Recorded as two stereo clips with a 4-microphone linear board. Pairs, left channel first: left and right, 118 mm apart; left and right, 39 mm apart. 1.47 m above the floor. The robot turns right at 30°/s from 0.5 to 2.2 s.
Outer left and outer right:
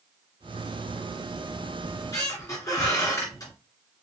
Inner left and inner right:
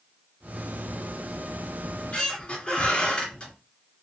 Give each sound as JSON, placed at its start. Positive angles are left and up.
{"t": 1.8, "sound": "a squeak", "side_deg": 35, "distance_m": 2.0}